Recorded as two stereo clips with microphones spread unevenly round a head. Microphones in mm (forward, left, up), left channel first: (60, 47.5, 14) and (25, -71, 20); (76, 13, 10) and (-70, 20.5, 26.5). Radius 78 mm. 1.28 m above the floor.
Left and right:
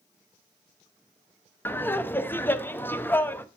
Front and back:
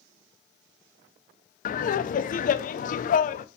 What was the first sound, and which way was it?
Laughter, straight ahead.